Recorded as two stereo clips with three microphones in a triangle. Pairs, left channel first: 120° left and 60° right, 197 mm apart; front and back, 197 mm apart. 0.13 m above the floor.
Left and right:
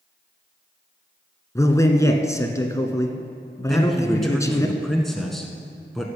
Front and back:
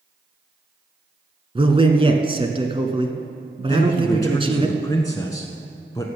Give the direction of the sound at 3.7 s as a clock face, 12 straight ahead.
11 o'clock.